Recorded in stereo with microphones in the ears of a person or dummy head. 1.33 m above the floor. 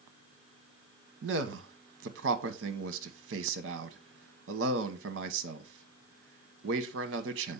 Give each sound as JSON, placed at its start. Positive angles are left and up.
{"t": 1.2, "sound": "a man speaking", "side_deg": -65, "distance_m": 1.2}